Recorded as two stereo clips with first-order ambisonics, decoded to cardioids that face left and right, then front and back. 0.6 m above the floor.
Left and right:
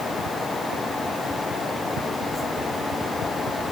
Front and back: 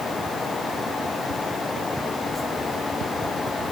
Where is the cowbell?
I don't hear a cowbell.